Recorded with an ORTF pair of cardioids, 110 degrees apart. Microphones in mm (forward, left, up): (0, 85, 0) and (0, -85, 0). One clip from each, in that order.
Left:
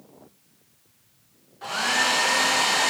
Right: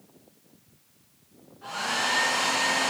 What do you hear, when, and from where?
1.6 s a hair dryer: 50° left, 0.7 m